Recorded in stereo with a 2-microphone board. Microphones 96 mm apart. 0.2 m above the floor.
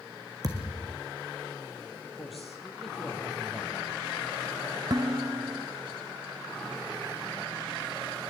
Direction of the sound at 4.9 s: 45° right (ahead or behind).